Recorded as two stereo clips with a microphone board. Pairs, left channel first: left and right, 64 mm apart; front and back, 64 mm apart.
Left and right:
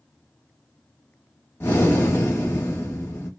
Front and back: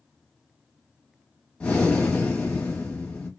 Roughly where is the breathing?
Ahead left.